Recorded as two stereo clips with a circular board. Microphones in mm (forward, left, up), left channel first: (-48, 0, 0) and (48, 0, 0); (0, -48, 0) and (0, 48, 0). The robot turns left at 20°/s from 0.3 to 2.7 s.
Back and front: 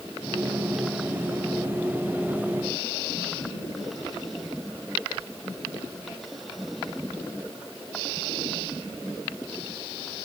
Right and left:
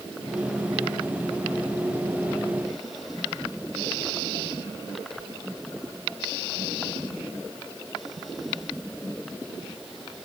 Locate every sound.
Only background noise.